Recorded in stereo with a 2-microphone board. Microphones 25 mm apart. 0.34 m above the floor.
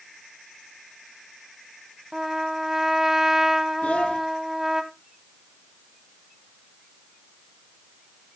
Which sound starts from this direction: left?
A child speaking, at 3.8 s.